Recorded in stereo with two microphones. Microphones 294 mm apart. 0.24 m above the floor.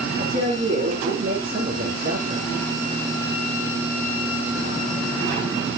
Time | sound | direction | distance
0.2 | a woman speaking | 55° right (ahead or behind) | 3.5 m